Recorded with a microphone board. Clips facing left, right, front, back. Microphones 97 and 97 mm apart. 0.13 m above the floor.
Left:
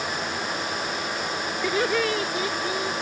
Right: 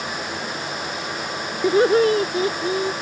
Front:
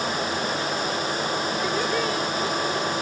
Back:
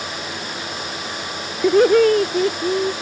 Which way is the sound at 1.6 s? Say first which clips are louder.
Right 9 dB, back 17 dB; 150° right.